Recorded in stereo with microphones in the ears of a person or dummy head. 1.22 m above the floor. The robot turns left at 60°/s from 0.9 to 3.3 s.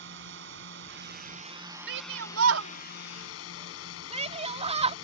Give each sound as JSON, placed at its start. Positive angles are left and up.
{"t": 0.0, "sound": "a drone", "azimuth_deg": -120}
{"t": 1.9, "sound": "a shout", "side_deg": -65}